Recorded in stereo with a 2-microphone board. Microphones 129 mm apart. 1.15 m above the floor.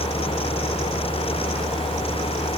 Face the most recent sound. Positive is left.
No sound to turn to.